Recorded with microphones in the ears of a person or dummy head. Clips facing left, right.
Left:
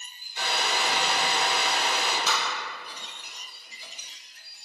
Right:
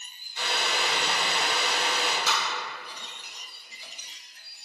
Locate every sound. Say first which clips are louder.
0.4 s a hair dryer: left 1 dB; 40° left (ahead or behind), 0.7 m
2.3 s tapping: left 1 dB; 60° left (ahead or behind), 1.1 m